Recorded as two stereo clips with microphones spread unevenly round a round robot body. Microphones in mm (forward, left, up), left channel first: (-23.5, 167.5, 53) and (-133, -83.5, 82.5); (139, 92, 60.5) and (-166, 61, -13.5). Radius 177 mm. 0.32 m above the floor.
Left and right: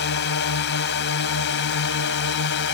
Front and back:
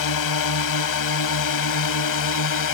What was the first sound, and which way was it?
A drone, 25° left.